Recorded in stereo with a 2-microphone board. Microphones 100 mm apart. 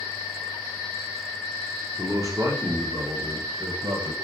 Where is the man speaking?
25° right (ahead or behind), 0.7 m; by 4.1 s 60° right (ahead or behind), 1.7 m.